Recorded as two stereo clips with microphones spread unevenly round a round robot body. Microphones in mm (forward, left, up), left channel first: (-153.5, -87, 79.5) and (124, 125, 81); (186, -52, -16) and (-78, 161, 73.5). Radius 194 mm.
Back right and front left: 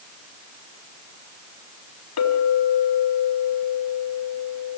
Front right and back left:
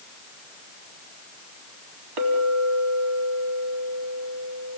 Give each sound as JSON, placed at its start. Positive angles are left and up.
{"t": 2.2, "sound": "a clink", "azimuth_deg": 170, "distance_m": 3.5}